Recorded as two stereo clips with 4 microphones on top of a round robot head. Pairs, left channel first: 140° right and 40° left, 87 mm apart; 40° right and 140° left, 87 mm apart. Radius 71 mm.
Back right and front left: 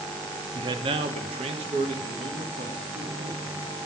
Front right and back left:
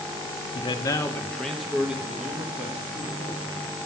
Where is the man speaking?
5° right, 0.6 m; by 3.6 s 70° left, 2.5 m.